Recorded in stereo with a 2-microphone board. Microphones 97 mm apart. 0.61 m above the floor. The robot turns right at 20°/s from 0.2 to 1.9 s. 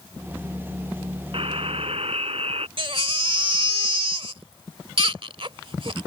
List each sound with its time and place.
1.3 s a buzzer: 65° right (ahead or behind); by 2.7 s 75° right (ahead or behind)
2.8 s a baby crying: 60° right (ahead or behind)